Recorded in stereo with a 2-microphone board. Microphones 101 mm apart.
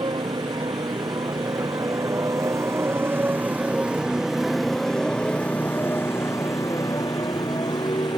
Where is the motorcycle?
50° right (ahead or behind); by 8.2 s 50° left (ahead or behind).